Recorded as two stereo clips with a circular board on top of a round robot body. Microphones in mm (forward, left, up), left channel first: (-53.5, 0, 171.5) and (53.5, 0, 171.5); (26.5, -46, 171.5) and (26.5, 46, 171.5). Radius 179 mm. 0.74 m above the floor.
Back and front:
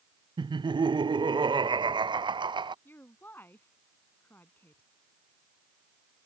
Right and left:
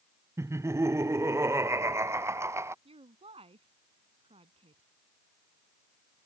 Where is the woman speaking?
110° left.